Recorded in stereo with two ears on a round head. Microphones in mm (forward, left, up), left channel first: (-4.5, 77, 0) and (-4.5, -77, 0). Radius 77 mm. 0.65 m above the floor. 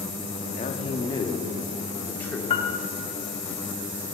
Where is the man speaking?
35° left (ahead or behind), 1.0 m; by 2.4 s 10° left (ahead or behind), 1.5 m.